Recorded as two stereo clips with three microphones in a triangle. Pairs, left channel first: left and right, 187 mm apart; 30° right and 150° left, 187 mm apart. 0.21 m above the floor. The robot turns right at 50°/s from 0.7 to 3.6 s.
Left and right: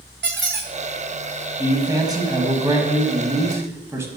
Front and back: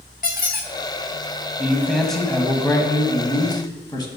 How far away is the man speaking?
About 1.0 m.